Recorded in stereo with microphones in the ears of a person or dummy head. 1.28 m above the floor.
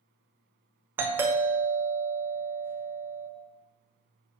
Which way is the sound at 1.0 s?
10° right (ahead or behind).